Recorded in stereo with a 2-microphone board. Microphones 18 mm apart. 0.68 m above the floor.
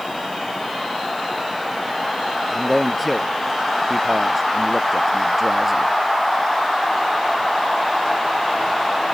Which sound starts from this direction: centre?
A man speaking, at 2.5 s.